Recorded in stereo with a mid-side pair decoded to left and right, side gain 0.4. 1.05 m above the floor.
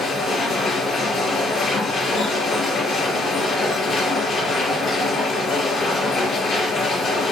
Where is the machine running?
70° left, 4 m.